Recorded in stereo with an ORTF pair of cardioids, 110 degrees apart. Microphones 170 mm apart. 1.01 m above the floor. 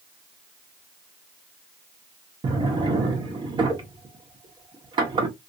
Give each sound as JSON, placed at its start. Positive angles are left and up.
{"t": 2.4, "sound": "a drawer", "azimuth_deg": -25, "distance_m": 1.4}